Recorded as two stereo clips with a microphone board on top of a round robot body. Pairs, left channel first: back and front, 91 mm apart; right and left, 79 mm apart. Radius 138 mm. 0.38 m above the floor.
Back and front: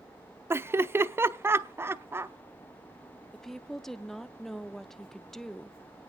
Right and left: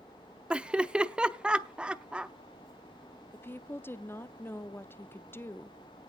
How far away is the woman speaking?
About 0.8 m.